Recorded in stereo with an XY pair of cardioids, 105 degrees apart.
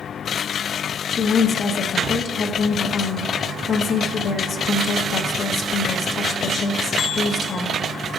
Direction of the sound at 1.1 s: 55° left.